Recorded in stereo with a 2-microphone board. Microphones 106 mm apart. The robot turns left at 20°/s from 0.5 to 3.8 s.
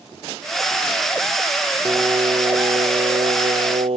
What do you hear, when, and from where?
1.9 s singing: 35° right; by 4.0 s 70° right